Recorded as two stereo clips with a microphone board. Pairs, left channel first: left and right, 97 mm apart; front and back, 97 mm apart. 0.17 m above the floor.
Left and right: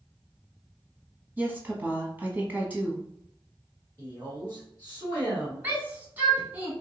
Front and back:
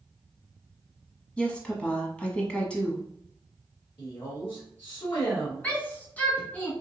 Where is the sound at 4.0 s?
25° left, 2 m.